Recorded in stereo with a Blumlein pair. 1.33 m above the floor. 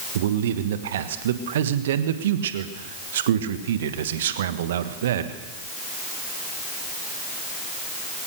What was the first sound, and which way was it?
A man speaking, 60° right.